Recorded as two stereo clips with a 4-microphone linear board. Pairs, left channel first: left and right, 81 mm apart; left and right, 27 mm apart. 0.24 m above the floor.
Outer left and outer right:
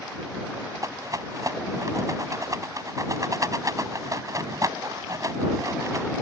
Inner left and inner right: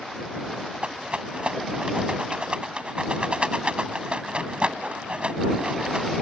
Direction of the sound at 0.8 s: 45° right (ahead or behind).